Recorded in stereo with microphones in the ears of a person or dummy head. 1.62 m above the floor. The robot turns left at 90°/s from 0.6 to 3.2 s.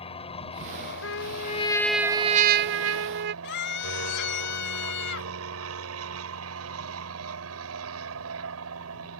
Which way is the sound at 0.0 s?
150° left.